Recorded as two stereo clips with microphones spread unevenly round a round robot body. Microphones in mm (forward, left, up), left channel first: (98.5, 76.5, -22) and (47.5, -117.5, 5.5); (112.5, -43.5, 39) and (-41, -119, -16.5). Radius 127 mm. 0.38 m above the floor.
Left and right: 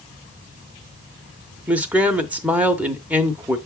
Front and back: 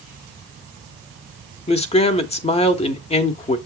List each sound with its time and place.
1.7 s a man speaking: 15° right, 0.8 m